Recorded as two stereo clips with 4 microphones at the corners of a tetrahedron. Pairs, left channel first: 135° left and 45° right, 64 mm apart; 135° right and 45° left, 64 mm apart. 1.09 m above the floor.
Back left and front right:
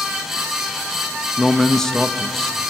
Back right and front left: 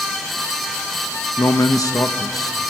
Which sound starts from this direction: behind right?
A man speaking, at 1.4 s.